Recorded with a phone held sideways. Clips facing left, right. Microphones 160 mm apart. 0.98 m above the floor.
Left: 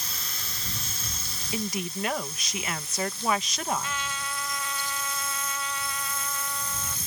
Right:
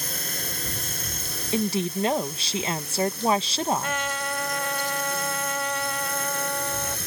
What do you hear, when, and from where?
0.0 s a drone: 50° right (ahead or behind); by 7.1 s 65° right (ahead or behind)
1.5 s a woman speaking: 30° right (ahead or behind)
3.8 s a trumpet: 60° right (ahead or behind)